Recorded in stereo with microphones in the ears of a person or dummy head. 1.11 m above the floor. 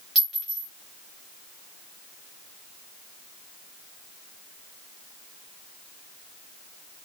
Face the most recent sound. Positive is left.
turn(degrees=0)  # may be behind; listen again after turning